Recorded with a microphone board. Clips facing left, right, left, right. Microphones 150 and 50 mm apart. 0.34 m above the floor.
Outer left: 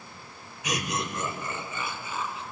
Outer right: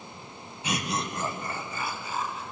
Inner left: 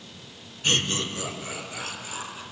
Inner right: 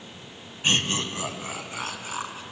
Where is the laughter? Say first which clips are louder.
Even, inner right 1 dB; 30° right (ahead or behind), 2.5 m; by 2.4 s 40° right (ahead or behind), 4 m.